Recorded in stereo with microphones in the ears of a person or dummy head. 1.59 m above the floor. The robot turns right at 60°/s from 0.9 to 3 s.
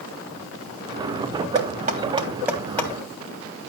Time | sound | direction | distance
1.6 | knocking | 65° right (ahead or behind) | 3 m